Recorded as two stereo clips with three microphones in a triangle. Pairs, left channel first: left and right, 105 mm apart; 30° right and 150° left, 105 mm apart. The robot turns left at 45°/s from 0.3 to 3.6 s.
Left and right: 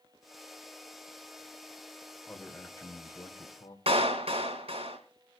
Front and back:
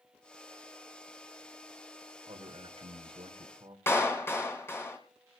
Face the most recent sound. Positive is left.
turn(degrees=-95)